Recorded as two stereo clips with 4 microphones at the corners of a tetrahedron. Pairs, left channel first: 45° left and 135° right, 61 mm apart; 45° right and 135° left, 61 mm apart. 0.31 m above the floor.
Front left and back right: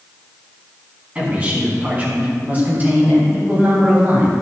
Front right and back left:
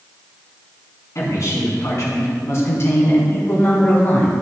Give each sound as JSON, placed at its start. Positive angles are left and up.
{"t": 1.1, "sound": "a man speaking", "azimuth_deg": -70, "distance_m": 3.5}